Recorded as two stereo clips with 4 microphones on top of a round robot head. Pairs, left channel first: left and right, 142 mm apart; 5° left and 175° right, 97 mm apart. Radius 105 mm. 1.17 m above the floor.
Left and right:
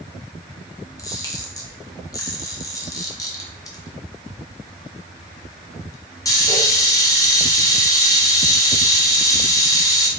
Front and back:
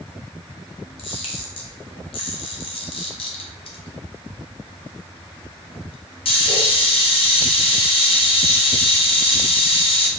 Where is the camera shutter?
25° left, 0.8 m.